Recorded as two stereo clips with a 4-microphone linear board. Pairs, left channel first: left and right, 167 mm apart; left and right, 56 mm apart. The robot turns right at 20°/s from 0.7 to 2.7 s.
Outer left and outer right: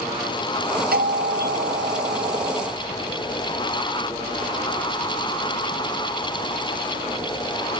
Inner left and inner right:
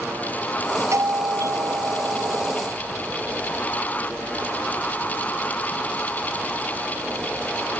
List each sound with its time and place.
0.9 s a doorbell: 105° right; by 2.6 s 70° right